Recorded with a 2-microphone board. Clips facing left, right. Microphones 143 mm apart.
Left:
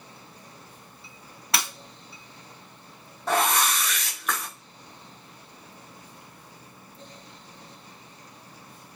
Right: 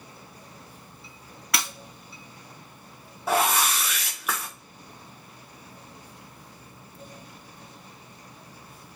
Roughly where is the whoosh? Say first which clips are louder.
Even; centre.